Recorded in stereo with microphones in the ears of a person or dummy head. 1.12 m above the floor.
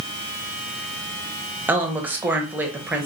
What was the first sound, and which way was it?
A woman speaking, 10° right (ahead or behind).